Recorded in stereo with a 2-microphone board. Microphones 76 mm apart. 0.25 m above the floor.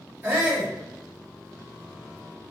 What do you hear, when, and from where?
0.2 s a shout: 25° right (ahead or behind), 2 m